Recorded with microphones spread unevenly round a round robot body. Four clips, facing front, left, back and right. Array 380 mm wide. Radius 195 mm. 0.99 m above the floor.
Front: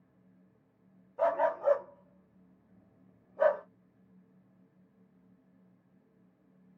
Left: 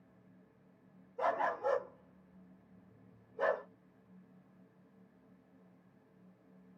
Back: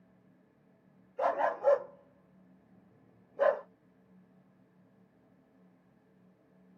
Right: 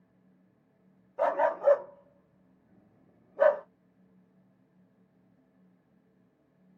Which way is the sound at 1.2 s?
90° right.